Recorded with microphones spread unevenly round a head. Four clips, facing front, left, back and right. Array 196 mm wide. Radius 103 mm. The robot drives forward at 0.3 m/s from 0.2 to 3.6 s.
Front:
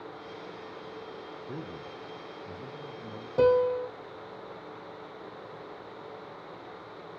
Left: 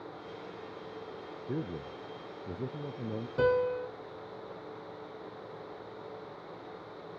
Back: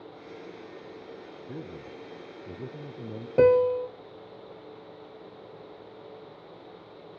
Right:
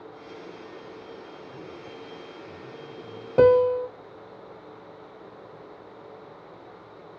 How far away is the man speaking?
About 0.6 m.